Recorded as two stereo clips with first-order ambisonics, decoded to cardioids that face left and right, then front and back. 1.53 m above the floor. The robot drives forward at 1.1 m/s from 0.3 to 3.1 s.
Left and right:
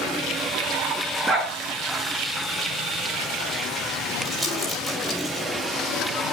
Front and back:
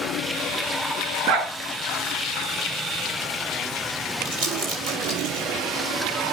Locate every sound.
1.3 s a dog barking: straight behind, 7 m
4.2 s crumpling: 165° right, 6.5 m